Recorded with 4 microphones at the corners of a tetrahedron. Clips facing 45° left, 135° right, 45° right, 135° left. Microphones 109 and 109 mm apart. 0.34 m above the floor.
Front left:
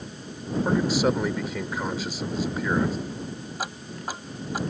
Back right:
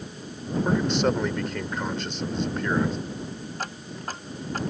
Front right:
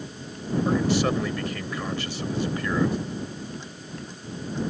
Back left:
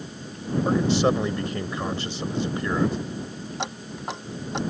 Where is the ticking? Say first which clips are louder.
Front left 3 dB, back left 6 dB; 125° left.